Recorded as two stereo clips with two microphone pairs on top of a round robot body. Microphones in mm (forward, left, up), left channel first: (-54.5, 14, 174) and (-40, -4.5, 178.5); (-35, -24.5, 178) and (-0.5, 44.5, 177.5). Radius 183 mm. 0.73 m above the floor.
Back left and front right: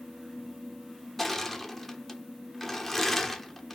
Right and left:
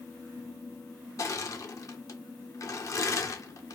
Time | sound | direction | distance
1.2 | crushing | 160° right | 1.0 m